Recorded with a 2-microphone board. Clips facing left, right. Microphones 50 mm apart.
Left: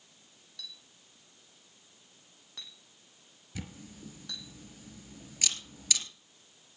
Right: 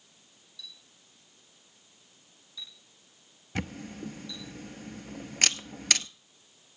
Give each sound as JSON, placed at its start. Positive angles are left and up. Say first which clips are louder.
{"t": 0.6, "sound": "a clink", "louder": "left 1 dB", "side_deg": 60, "distance_m": 2.5}
{"t": 3.5, "sound": "a camera shutter", "louder": "right 9 dB", "side_deg": -60, "distance_m": 0.7}